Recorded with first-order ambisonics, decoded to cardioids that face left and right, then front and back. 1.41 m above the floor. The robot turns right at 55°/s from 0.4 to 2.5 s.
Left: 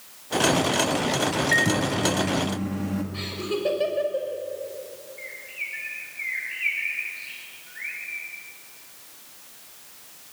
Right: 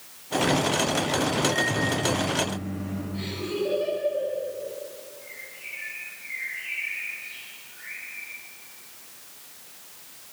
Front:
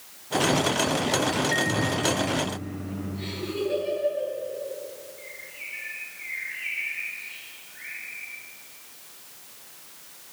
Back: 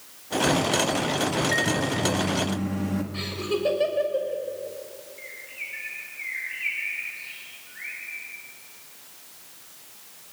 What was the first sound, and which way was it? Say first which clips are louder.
A microwave: left 3 dB, back 1 dB; 95° left.